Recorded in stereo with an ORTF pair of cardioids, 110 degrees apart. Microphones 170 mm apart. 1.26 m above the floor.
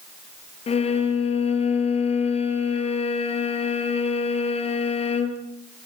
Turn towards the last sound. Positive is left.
turn(degrees=40)